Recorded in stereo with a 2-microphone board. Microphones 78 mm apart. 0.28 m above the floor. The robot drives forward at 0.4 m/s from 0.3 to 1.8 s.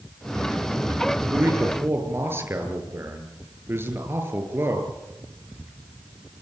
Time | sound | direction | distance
1.2 | a man speaking | 30° right (ahead or behind) | 6 m